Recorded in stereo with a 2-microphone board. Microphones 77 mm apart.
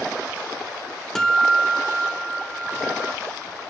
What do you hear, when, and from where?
1.1 s a guitar: 10° left (ahead or behind), 1.1 m